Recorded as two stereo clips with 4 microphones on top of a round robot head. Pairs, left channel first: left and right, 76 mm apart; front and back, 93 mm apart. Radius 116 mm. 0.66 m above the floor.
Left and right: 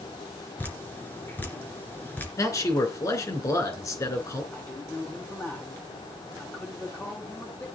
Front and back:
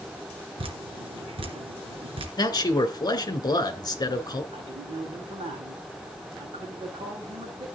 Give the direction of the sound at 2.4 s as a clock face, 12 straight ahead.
10 o'clock.